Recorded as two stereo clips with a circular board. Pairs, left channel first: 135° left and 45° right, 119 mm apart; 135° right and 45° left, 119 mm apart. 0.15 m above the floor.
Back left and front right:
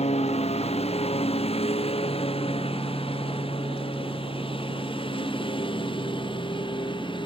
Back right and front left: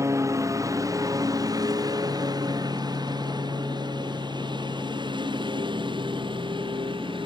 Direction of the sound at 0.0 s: 110° left.